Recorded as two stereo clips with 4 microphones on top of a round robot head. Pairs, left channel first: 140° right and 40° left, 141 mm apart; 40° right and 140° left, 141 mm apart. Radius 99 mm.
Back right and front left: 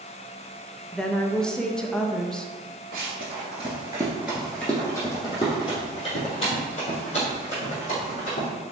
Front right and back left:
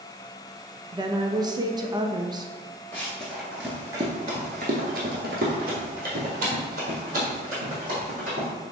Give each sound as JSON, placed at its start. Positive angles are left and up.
{"t": 0.9, "sound": "a woman speaking", "azimuth_deg": 140, "distance_m": 0.6}
{"t": 2.9, "sound": "running footsteps", "azimuth_deg": 35, "distance_m": 0.9}